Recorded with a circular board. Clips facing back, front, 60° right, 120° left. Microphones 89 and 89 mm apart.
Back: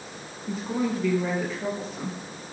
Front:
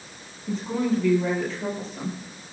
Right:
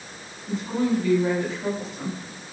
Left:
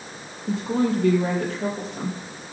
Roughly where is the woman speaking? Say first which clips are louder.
Front 2 dB, left 2 dB; left.